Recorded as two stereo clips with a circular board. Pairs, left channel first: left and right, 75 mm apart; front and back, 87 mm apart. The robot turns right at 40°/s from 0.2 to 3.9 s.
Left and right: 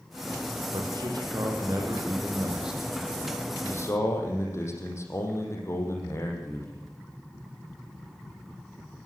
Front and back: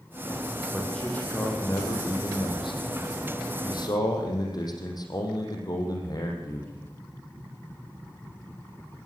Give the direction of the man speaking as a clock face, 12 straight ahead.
3 o'clock.